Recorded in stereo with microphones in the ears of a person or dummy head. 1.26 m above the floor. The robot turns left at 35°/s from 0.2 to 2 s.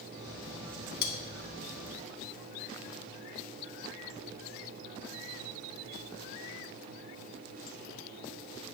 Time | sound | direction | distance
1.0 | cutlery clinking | 55° left (ahead or behind) | 0.6 m